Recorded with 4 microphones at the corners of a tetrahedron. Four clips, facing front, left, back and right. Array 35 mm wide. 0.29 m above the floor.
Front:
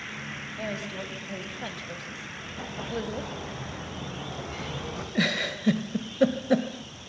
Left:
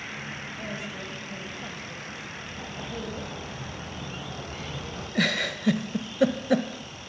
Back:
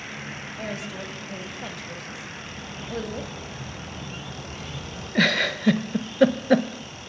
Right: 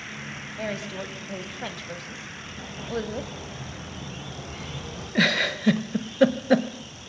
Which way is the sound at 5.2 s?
150° right.